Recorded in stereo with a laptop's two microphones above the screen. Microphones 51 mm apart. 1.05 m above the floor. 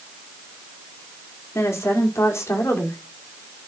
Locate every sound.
1.6 s a woman speaking: 85° left, 1.9 m; by 3.6 s 70° left (ahead or behind), 3 m